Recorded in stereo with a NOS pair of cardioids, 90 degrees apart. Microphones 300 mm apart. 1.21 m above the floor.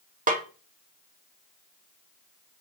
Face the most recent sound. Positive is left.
turn(degrees=-25)